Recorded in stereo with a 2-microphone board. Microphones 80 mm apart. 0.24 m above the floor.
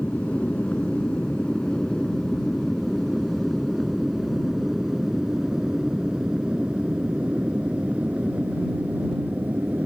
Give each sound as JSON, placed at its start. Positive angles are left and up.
{"t": 0.0, "sound": "an aircraft", "side_deg": 20}